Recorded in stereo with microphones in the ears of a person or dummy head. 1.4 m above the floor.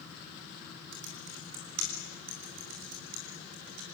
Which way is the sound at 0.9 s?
85° right.